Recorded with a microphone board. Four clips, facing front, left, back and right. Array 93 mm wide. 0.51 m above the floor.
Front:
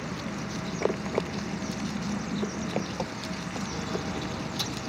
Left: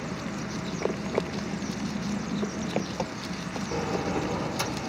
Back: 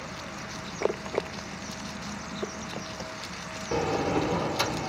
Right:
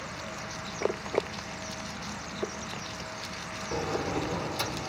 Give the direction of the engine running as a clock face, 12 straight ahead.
10 o'clock.